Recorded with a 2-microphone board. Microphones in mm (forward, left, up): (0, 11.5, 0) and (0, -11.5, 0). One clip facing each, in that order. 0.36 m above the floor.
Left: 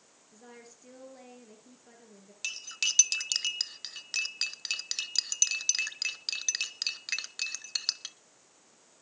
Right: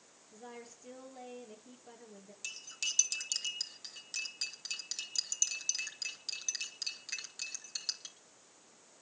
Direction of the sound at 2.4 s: 50° left (ahead or behind).